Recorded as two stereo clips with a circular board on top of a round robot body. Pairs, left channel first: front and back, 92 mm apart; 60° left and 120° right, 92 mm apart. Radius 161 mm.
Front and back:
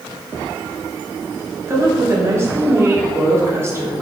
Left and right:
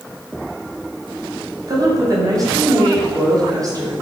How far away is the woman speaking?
About 1.5 m.